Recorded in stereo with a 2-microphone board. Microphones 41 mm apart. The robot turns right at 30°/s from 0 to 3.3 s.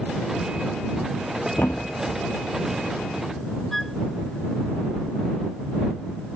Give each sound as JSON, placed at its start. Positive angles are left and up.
{"t": 1.6, "sound": "a thud", "side_deg": 65}
{"t": 3.7, "sound": "a flute", "side_deg": 5}